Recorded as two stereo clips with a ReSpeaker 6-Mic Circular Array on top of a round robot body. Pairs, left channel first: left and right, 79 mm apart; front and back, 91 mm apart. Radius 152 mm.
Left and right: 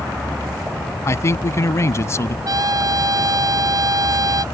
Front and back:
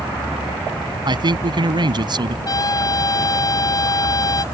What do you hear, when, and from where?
1.1 s a man speaking: 145° left
2.5 s a trumpet: 50° right